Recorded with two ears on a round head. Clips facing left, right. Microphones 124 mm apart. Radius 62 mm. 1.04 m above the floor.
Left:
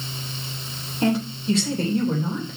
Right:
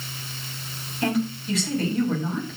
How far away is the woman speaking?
About 3.5 m.